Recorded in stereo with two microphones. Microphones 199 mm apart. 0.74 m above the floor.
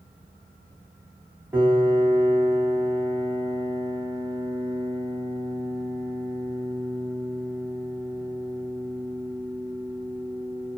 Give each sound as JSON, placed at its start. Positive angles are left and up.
{"t": 1.5, "sound": "a piano", "side_deg": -10, "distance_m": 0.9}